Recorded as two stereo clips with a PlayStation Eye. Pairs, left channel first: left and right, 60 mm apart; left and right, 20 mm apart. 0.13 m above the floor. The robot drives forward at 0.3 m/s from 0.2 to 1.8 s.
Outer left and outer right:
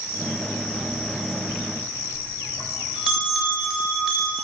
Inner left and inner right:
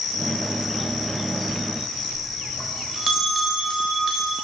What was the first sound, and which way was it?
A bell, 15° right (ahead or behind).